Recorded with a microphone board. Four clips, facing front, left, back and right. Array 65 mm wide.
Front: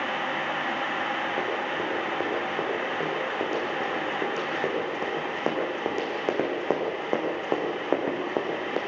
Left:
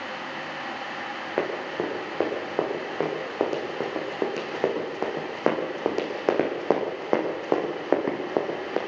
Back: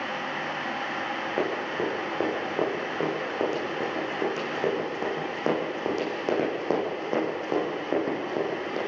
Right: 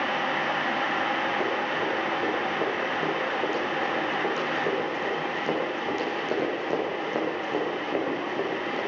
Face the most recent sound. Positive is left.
turn(degrees=65)